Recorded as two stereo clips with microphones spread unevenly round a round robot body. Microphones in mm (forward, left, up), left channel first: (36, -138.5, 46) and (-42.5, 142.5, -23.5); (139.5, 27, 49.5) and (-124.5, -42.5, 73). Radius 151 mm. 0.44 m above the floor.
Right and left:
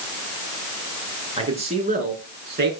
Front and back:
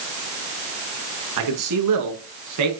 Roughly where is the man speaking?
Behind.